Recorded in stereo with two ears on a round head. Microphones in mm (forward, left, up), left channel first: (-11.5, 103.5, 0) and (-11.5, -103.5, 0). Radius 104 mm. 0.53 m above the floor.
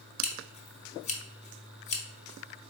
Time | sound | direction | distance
0.2 | scissors | 30° left (ahead or behind) | 0.8 m